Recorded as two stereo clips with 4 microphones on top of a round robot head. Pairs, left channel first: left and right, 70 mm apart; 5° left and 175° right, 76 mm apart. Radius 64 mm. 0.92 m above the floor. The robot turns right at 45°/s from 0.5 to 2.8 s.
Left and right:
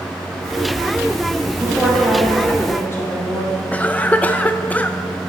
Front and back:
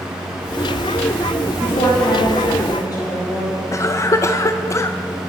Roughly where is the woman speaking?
Ahead.